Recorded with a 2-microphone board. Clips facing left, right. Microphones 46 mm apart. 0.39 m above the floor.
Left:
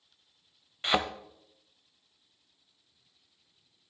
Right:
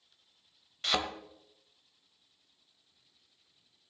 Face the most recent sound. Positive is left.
turn(degrees=25)  # may be behind; listen again after turning